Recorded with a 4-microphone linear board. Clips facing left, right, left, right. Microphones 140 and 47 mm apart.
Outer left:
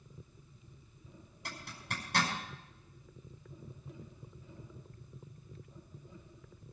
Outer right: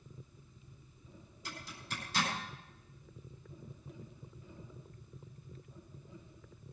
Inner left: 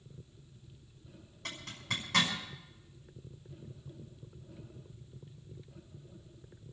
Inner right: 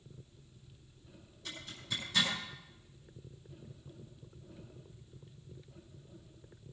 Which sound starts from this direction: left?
A zipper, at 1.4 s.